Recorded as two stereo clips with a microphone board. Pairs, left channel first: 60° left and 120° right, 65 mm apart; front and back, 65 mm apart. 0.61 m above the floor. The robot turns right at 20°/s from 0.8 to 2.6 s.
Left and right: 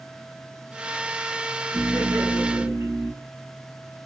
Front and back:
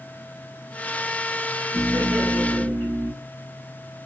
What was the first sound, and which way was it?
Laughter, 140° right.